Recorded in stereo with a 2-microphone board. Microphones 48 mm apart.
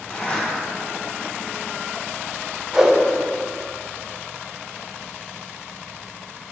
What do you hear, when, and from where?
0.1 s a zipper: 30° left (ahead or behind), 1.5 m
2.7 s a whoosh: 10° right (ahead or behind), 2 m